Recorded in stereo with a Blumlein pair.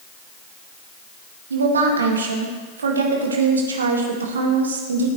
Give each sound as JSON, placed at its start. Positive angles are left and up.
{"t": 1.5, "sound": "a woman speaking", "azimuth_deg": -70, "distance_m": 2.0}